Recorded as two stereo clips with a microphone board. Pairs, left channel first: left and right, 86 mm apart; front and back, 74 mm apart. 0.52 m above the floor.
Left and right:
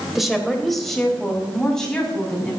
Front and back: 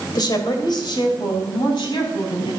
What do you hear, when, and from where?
0.1 s a woman speaking: straight ahead, 2.5 m; by 2.5 s 10° left, 5.5 m